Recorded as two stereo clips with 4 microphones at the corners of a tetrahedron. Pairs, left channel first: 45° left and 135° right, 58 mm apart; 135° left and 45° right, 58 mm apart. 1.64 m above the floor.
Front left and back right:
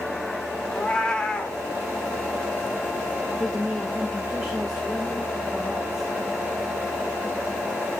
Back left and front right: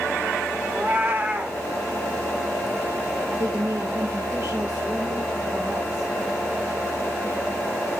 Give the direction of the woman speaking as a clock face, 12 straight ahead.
2 o'clock.